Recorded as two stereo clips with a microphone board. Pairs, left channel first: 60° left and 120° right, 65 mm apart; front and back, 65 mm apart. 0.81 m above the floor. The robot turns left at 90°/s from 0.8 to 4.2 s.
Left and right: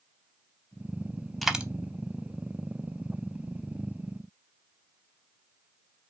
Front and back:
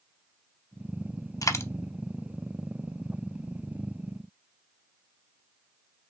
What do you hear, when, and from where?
1.4 s a dropped coin: 30° right, 0.6 m; by 1.6 s 50° right, 0.6 m